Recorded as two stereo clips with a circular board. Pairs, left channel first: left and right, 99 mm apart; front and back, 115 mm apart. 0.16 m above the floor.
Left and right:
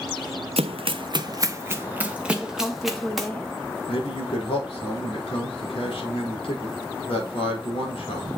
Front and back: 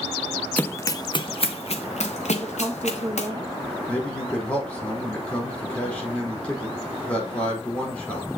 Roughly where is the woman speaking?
Behind left.